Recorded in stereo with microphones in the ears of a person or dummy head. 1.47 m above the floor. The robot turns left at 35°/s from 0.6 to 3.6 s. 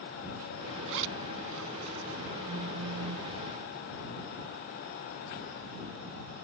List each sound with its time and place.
0.9 s a zipper: 70° right (ahead or behind); by 2.4 s 60° right (ahead or behind)
2.5 s a phone buzzing: 45° right (ahead or behind); by 3.3 s 75° right (ahead or behind)